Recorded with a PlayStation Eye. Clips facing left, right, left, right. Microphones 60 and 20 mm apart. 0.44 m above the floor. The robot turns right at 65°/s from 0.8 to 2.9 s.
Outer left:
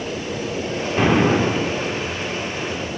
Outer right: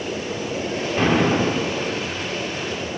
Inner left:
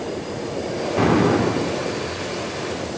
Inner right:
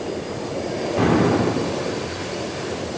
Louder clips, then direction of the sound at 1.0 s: Outer left 2 dB, inner left 1 dB; 10° left (ahead or behind).